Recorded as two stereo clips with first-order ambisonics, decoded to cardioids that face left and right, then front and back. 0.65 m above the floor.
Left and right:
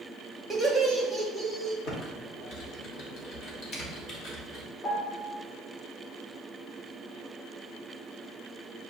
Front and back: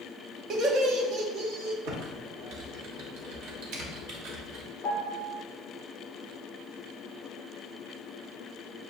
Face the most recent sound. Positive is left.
turn(degrees=85)